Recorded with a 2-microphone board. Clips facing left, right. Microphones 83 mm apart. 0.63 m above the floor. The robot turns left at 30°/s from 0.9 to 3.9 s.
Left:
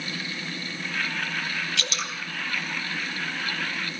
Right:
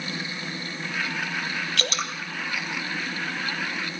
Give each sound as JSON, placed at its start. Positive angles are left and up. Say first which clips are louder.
{"t": 1.8, "sound": "dripping", "louder": "right 3 dB", "side_deg": -50, "distance_m": 2.5}